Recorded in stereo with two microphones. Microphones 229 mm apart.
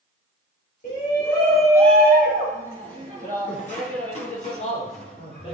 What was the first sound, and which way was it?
A shout, 40° left (ahead or behind).